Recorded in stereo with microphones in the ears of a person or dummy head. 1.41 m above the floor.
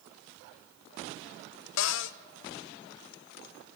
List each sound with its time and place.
1.8 s a cupboard door: 70° left (ahead or behind), 0.7 m